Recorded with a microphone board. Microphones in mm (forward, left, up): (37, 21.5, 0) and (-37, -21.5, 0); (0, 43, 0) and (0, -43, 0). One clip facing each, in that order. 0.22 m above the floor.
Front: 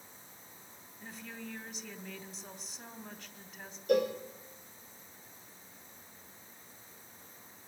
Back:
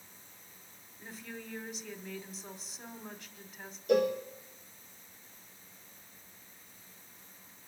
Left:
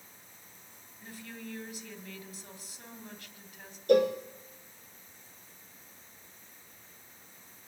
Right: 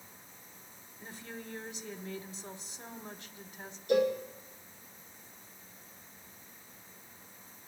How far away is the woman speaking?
About 1.2 m.